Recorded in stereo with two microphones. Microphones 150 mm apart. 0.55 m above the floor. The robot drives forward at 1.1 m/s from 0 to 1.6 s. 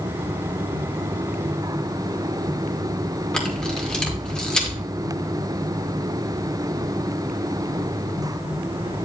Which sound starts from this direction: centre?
A camera shutter, at 3.3 s.